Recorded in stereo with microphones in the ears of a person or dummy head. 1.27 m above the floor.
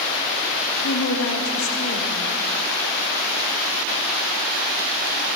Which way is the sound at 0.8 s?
85° left.